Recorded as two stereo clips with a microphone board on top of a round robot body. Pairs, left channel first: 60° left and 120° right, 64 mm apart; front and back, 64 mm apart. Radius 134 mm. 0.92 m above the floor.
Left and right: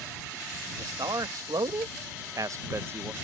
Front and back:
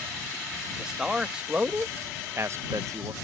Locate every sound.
0.8 s a man speaking: 100° right; by 3.1 s straight behind